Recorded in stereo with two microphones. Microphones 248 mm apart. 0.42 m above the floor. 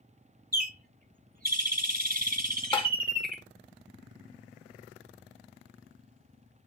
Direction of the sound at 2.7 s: 20° left (ahead or behind).